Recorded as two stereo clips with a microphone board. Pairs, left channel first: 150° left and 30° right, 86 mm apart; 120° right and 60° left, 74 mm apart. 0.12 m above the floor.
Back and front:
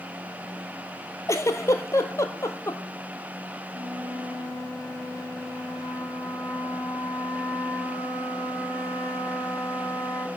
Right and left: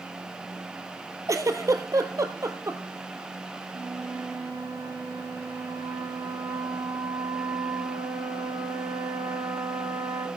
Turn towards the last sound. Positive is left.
turn(degrees=90)